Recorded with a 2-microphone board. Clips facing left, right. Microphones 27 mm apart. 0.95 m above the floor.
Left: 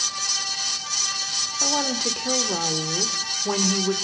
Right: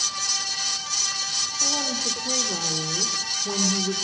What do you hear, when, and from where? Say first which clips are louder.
1.6 s a woman speaking: left 3 dB; 40° left (ahead or behind), 2.5 m